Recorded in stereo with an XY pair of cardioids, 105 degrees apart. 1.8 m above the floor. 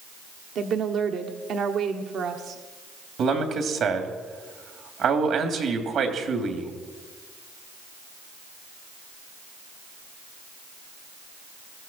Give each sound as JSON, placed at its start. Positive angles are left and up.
{"t": 0.6, "sound": "a woman speaking", "azimuth_deg": -60, "distance_m": 1.4}
{"t": 3.2, "sound": "a man speaking", "azimuth_deg": -65, "distance_m": 3.0}